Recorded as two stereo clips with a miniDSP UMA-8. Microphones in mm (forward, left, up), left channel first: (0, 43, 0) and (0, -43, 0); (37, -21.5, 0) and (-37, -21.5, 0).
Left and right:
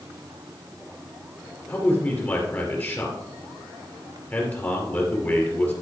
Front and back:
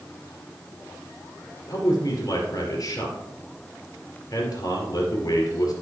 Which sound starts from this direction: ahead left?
A man speaking, at 1.7 s.